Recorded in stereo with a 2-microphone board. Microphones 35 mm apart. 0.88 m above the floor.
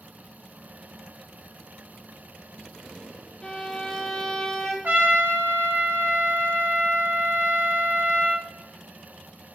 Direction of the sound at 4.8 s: 75° right (ahead or behind).